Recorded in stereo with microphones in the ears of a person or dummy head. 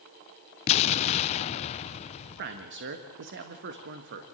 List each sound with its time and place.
0.7 s an explosion: 35° left (ahead or behind), 0.5 m
2.4 s a man speaking: 60° right (ahead or behind), 1.4 m